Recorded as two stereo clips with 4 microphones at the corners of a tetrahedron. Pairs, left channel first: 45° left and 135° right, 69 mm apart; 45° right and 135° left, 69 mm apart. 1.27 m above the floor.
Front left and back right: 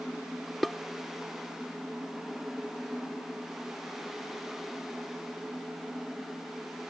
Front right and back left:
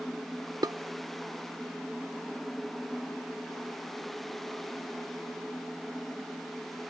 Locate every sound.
0.6 s dishes clattering: 130° left